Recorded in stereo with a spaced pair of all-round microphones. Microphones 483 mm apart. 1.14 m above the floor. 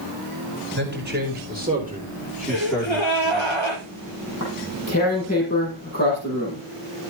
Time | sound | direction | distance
0.8 | a man speaking | 20° right (ahead or behind) | 4.5 m
2.5 | a gasp | 65° left (ahead or behind) | 5 m
4.3 | tearing paper | 30° left (ahead or behind) | 6.5 m